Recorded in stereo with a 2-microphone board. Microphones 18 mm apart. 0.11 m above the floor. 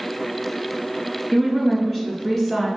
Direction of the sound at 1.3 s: 10° left (ahead or behind).